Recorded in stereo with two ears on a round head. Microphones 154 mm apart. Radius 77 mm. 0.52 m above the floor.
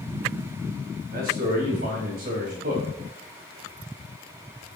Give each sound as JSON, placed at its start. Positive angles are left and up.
{"t": 1.1, "sound": "a man speaking", "side_deg": -55, "distance_m": 3.5}